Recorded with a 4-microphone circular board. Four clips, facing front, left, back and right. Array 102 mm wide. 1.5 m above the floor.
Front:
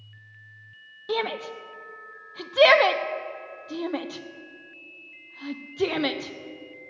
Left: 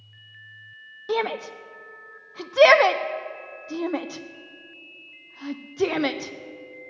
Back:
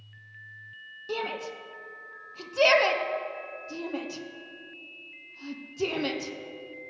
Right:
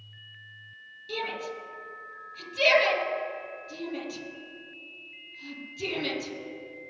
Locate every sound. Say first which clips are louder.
1.1 s a shout: left 8 dB, front 5 dB; 65° left, 0.7 m